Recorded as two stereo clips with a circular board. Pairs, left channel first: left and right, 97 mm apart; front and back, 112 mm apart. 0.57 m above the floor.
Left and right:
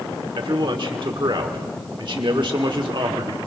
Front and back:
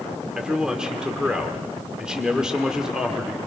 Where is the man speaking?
95° right, 1.4 m.